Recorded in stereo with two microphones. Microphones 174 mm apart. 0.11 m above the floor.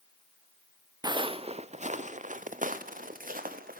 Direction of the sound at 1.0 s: 25° right (ahead or behind).